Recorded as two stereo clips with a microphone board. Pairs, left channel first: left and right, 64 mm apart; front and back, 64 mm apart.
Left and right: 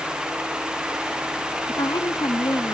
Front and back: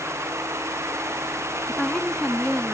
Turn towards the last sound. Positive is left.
turn(degrees=85)